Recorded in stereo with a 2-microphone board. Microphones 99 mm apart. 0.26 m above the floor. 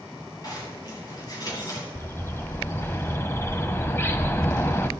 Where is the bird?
25° left (ahead or behind), 0.6 m.